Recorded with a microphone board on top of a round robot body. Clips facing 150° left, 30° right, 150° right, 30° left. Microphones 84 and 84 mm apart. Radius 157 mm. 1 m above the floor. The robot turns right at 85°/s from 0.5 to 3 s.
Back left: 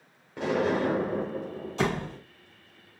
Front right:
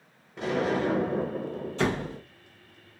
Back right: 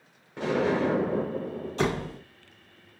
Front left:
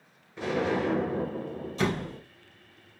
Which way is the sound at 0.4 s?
170° left.